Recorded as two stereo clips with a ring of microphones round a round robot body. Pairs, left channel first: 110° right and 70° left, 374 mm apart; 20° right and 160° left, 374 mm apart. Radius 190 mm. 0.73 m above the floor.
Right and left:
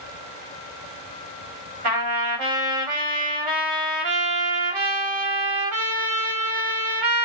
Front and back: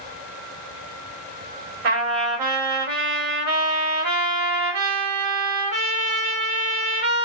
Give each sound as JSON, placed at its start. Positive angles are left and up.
{"t": 1.8, "sound": "a trumpet", "azimuth_deg": 105, "distance_m": 1.7}